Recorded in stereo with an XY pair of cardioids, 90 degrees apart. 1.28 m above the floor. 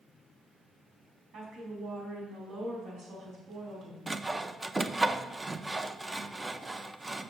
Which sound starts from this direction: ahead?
Sawing, at 4.1 s.